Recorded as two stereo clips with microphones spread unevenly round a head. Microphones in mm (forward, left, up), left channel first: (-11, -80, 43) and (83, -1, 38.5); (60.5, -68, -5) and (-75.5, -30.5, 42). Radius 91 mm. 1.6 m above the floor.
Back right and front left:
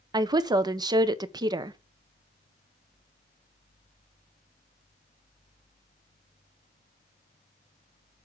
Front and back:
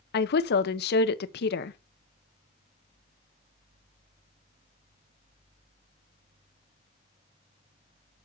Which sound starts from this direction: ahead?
A woman speaking, at 0.1 s.